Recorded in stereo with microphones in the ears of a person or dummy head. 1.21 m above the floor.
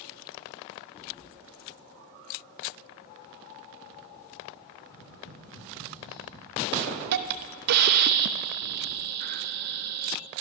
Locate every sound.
4.9 s tapping: 75° left (ahead or behind), 9.5 m
6.7 s a hiss: 50° right (ahead or behind), 0.8 m